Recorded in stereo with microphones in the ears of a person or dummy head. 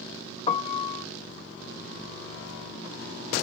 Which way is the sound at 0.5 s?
30° left (ahead or behind).